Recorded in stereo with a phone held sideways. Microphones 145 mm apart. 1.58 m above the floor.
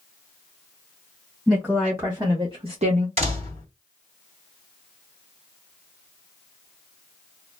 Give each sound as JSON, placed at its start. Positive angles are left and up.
{"t": 1.5, "sound": "a woman speaking", "side_deg": -5, "distance_m": 1.5}
{"t": 3.2, "sound": "a door slam", "side_deg": -45, "distance_m": 2.0}